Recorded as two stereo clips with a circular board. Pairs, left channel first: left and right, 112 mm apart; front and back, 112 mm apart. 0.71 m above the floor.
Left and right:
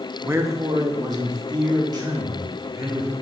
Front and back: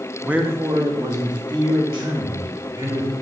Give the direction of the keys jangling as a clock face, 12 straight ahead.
I don't hear keys jangling.